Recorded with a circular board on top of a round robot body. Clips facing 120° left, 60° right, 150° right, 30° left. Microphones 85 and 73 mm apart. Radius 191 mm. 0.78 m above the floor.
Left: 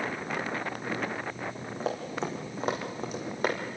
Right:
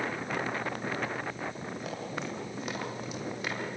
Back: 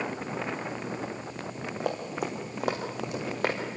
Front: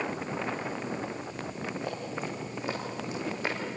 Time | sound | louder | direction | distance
1.8 | running footsteps | left 7 dB, back 8 dB | straight behind | 4 m